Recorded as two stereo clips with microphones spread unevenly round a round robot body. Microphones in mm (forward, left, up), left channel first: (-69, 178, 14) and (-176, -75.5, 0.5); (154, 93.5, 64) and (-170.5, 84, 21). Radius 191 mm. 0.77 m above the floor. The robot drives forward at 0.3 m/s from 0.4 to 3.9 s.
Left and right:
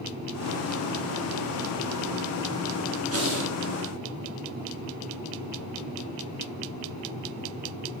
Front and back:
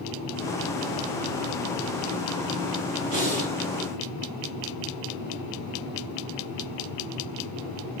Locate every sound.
3.1 s breathing: 150° right, 4.5 m